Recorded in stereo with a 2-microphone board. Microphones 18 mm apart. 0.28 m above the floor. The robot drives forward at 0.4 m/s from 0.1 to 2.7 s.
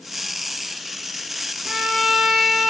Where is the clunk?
I don't hear a clunk.